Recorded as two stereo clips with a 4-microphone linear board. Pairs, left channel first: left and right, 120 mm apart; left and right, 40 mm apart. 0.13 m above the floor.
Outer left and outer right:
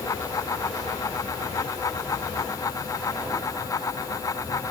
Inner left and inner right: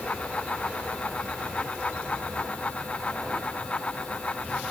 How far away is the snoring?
No snoring in this recording.